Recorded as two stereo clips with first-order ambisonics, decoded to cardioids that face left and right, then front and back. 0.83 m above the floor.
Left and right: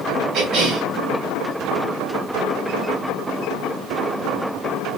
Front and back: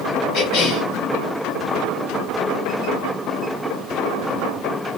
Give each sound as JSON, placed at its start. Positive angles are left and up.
{"t": 0.3, "sound": "a cough", "azimuth_deg": -45, "distance_m": 2.5}